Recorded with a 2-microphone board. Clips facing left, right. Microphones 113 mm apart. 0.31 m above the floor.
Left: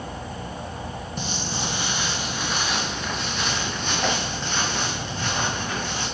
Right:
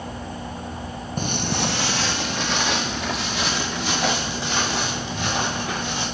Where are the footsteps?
45° right (ahead or behind), 0.7 m; by 6.0 s 85° right, 5 m.